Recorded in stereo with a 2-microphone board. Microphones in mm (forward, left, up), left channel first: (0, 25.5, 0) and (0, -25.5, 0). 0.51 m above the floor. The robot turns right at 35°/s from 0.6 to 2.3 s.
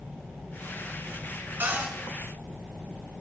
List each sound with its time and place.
1.6 s a cupboard door: 40° right (ahead or behind), 4 m; by 1.9 s 30° right (ahead or behind), 4 m